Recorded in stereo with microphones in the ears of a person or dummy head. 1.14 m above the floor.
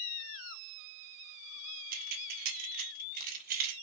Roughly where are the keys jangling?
Right.